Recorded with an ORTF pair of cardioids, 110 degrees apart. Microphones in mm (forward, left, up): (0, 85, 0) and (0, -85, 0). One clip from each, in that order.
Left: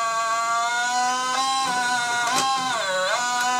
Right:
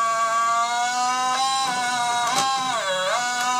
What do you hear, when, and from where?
0.0 s a machine running: straight ahead, 0.9 m